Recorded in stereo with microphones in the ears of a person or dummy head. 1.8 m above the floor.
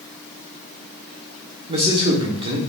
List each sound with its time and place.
1.7 s a man speaking: 30° right (ahead or behind), 1.2 m